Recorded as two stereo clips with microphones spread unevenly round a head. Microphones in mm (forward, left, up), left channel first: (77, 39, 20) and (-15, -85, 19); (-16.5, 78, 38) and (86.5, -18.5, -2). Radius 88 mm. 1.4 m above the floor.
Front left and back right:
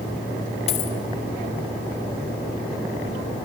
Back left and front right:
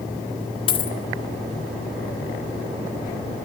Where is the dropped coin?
105° left, 1.5 m.